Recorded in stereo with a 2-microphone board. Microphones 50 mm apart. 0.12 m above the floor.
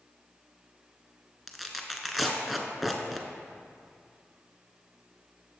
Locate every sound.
1.5 s tearing paper: centre (ahead or behind), 1.0 m